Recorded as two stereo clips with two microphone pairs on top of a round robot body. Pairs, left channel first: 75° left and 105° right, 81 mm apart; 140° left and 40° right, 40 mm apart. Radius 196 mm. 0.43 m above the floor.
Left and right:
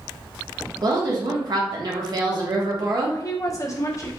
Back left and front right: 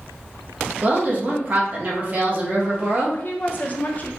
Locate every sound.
0.8 s a woman speaking: 90° right, 1.2 m
3.1 s a woman speaking: 105° left, 1.1 m